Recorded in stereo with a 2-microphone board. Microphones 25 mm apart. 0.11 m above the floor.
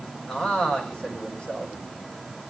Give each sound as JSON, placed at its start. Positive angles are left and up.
{"t": 0.3, "sound": "a man speaking", "side_deg": 45, "distance_m": 6.0}